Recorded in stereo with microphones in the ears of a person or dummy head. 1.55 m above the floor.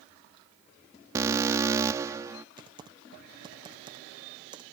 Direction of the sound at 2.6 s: 20° right (ahead or behind).